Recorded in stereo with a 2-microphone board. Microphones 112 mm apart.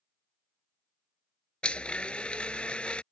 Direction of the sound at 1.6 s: 10° left (ahead or behind).